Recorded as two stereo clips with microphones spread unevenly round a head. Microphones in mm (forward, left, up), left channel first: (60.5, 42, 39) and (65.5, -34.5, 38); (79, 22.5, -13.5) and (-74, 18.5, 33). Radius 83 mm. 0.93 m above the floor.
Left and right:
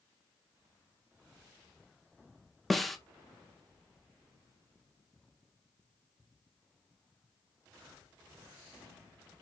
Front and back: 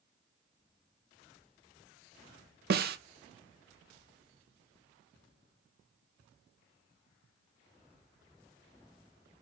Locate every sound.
2.7 s a snare drum: 175° right, 0.8 m